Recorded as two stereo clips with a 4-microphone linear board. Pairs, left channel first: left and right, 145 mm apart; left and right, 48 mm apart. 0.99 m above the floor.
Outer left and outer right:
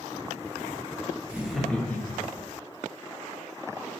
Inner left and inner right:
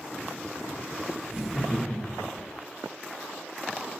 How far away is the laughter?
About 0.7 m.